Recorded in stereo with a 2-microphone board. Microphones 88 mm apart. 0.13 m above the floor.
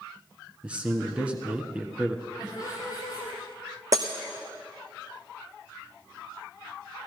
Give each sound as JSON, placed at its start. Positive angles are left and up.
{"t": 0.6, "sound": "a man speaking", "side_deg": -15, "distance_m": 1.2}
{"t": 2.4, "sound": "laughter", "side_deg": 40, "distance_m": 4.0}
{"t": 3.9, "sound": "breaking glass", "side_deg": -35, "distance_m": 1.6}